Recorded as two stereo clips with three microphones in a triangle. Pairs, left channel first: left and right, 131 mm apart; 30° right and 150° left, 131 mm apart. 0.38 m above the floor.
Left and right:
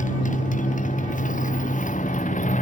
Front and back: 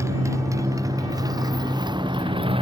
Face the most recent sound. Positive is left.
turn(degrees=105)